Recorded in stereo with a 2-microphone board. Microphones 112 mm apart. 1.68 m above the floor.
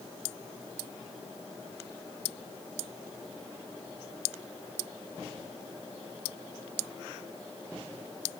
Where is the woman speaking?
No woman speaking in this recording.